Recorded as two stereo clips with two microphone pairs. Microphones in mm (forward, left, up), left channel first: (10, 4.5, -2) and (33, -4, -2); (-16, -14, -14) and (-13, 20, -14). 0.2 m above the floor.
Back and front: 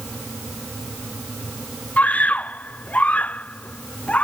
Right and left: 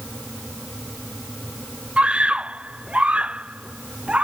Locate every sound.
2.0 s a scream: 145° left; by 4.2 s 140° left